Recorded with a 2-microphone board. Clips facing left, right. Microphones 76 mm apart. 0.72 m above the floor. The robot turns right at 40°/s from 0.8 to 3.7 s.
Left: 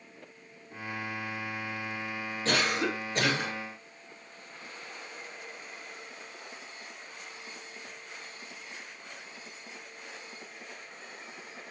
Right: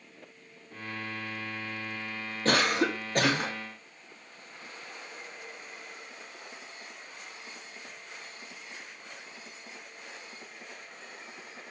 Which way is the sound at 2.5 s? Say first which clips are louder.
Right 3 dB; 115° right.